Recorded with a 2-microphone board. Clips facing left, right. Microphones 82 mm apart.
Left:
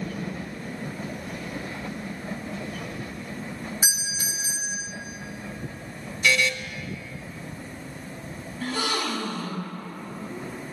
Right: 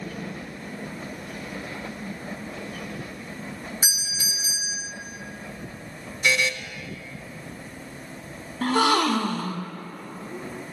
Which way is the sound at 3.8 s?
30° left (ahead or behind).